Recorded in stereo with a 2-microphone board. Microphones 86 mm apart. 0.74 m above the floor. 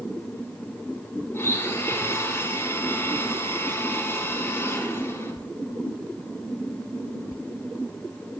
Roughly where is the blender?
Left.